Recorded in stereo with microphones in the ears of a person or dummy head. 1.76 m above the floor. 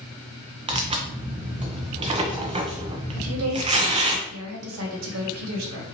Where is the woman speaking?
80° right, 1.2 m.